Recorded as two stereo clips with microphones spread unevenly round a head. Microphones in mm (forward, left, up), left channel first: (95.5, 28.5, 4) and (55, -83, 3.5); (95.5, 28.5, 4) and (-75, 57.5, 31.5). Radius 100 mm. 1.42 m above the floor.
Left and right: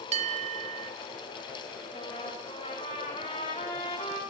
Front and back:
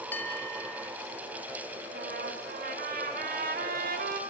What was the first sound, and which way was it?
A bell, 95° right.